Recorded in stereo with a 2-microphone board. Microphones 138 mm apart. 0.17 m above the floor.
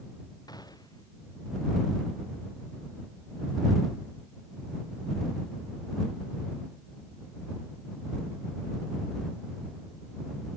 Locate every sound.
0.5 s a gunshot: 30° left (ahead or behind)